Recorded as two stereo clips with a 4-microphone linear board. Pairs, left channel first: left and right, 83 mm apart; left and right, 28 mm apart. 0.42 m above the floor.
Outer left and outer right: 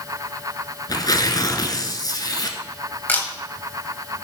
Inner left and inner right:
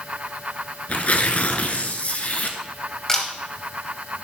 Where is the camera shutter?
25° left (ahead or behind), 2.5 m.